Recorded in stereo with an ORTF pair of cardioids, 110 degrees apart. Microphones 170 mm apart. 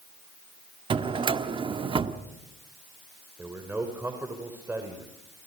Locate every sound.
0.9 s a drawer: 30° right, 1.4 m
3.4 s a man speaking: 15° right, 3.5 m